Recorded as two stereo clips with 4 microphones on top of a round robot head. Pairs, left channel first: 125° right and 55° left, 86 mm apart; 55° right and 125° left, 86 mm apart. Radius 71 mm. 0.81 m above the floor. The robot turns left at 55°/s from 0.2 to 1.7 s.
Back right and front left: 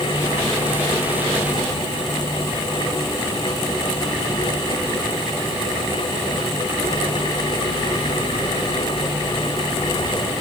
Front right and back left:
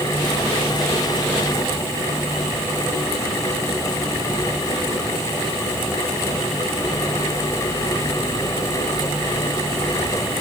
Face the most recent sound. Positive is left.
No sound to turn to.